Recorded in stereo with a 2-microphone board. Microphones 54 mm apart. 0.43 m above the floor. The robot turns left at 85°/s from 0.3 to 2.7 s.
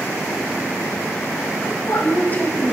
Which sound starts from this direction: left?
A woman speaking, at 1.6 s.